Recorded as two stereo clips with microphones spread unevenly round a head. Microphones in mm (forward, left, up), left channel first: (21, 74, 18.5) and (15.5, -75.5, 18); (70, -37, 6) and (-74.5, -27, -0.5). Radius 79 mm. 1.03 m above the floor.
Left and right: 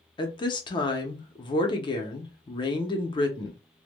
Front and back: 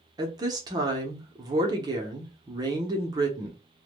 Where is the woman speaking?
130° left, 0.6 m.